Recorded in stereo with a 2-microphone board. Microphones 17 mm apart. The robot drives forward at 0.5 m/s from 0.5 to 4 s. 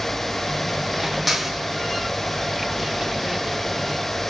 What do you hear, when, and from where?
1.3 s a clap: 5° right (ahead or behind), 5.5 m